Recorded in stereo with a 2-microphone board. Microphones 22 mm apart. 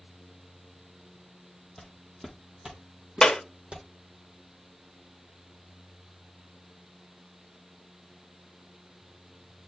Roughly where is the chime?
I don't hear a chime.